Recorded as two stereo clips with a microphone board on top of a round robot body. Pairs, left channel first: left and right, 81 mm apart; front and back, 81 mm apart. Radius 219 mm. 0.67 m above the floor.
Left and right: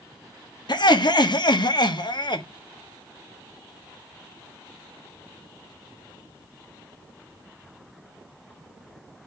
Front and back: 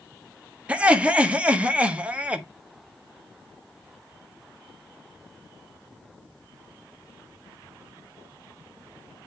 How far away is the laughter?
About 1.7 m.